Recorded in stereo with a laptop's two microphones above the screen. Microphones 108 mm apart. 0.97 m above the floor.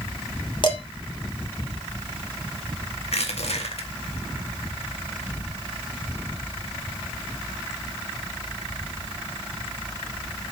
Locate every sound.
0.6 s dishes clattering: 50° left (ahead or behind), 2.5 m
3.0 s crushing: 70° left (ahead or behind), 2 m